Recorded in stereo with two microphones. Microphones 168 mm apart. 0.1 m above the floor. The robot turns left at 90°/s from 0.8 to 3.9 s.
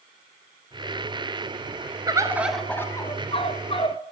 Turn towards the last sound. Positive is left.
turn(degrees=60)